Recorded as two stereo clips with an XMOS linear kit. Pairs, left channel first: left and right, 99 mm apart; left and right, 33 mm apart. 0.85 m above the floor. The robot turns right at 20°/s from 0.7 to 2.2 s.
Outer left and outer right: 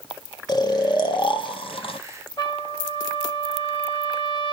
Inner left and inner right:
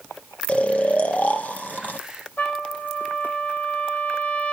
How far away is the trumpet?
About 2.5 m.